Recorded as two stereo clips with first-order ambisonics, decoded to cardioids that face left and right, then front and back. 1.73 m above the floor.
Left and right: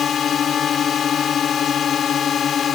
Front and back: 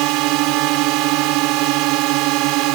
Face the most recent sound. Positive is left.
turn(degrees=155)